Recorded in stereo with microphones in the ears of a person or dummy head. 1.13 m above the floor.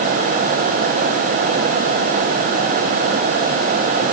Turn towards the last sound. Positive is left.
No sound to turn to.